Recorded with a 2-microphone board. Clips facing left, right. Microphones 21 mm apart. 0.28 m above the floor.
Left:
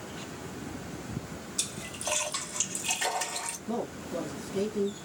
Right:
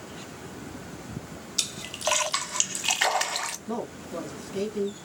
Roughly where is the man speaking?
Right.